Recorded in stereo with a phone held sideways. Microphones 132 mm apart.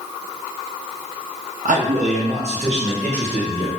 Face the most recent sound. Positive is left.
turn(degrees=-50)  # may be behind; listen again after turning